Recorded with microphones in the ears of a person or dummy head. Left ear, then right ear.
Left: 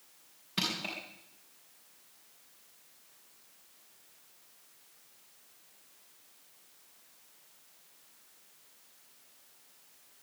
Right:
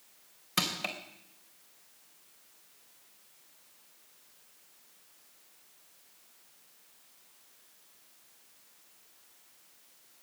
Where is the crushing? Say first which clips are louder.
Right 2 dB; 40° right (ahead or behind), 3 m.